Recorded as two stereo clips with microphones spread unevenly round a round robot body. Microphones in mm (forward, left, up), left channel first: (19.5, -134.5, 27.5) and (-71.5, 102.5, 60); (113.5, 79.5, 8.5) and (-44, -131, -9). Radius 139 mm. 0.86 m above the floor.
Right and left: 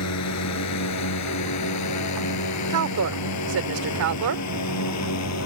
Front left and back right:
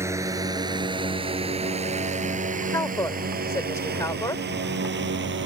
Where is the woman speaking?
130° left.